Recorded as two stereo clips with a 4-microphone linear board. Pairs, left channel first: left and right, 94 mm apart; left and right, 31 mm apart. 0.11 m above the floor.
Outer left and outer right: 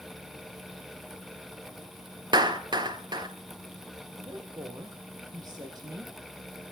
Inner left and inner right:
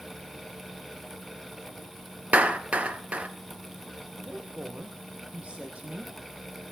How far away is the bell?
No bell in this recording.